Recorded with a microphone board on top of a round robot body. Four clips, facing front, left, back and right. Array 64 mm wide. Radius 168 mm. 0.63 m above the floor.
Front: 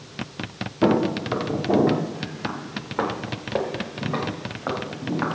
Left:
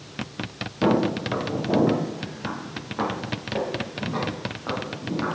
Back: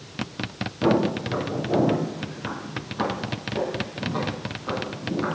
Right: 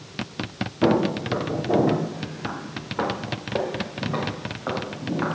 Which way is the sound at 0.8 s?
20° left.